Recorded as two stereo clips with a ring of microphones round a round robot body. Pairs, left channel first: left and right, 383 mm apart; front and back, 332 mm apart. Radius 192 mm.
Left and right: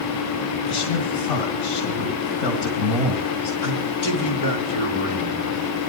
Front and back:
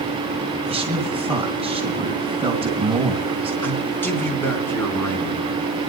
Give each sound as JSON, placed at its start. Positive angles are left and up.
{"t": 0.7, "sound": "a man speaking", "azimuth_deg": 95, "distance_m": 3.0}
{"t": 3.6, "sound": "a man speaking", "azimuth_deg": 85, "distance_m": 3.5}